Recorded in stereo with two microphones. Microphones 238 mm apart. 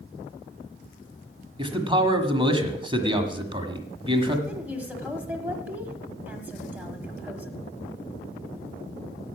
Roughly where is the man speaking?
Right.